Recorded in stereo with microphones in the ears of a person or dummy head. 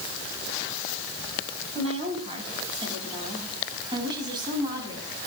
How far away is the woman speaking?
About 9 m.